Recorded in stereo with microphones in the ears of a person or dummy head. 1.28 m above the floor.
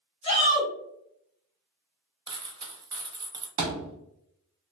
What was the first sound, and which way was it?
A shout, 35° left (ahead or behind).